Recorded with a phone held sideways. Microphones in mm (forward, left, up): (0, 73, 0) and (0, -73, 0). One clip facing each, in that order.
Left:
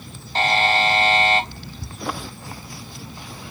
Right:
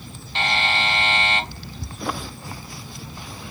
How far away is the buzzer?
About 0.5 m.